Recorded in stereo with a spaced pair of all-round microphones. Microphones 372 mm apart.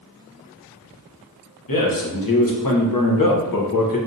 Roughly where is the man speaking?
Left.